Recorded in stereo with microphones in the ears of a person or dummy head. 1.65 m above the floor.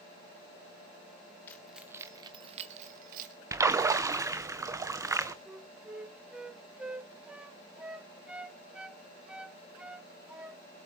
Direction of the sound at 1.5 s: 10° left (ahead or behind).